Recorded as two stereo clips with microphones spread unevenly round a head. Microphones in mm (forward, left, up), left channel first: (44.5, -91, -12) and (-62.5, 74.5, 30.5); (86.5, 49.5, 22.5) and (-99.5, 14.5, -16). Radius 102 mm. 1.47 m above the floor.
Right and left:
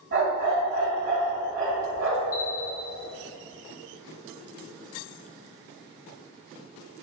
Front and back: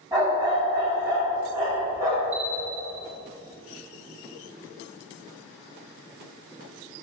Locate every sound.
0.1 s a dog barking: 110° left, 2.5 m
2.3 s a bell: 75° right, 1.1 m